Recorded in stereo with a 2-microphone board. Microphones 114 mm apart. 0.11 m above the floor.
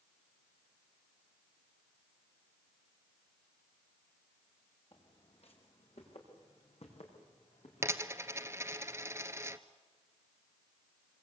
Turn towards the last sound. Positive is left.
turn(degrees=-25)  # may be behind; listen again after turning